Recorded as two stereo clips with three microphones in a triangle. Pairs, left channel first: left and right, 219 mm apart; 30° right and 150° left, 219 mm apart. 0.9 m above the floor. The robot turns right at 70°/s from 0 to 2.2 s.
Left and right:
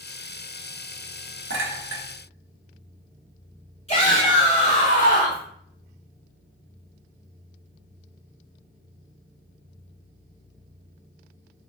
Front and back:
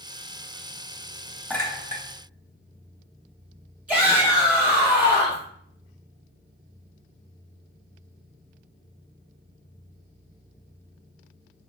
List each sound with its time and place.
1.5 s a clink: 115° right, 0.8 m; by 2.0 s 80° right, 0.8 m
3.9 s a shout: 70° left, 0.9 m